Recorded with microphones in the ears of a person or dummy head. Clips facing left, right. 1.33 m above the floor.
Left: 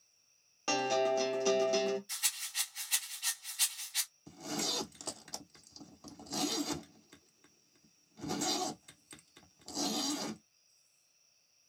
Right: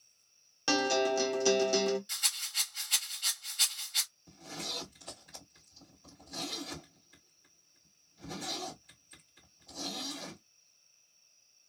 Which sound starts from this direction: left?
A zipper, at 4.3 s.